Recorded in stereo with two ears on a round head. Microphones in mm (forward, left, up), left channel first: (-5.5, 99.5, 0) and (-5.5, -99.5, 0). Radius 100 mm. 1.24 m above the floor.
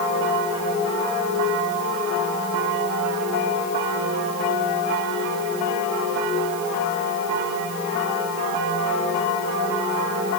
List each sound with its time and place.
Only background noise.